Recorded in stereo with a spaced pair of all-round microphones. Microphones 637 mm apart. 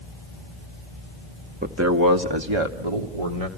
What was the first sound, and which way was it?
A man speaking, 15° right (ahead or behind).